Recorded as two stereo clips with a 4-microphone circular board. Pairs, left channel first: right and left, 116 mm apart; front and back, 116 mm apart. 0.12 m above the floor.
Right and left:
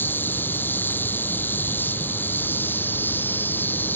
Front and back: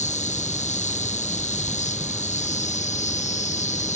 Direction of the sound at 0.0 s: 15° right.